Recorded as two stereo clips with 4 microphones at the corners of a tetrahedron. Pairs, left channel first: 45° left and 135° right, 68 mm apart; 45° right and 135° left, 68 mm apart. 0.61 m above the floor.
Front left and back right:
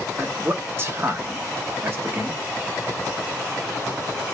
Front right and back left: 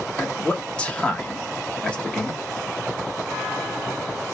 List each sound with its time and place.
0.2 s a man speaking: 110° right, 1.0 m